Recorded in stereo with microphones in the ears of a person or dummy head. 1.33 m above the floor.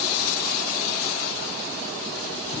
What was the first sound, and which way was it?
Only background noise.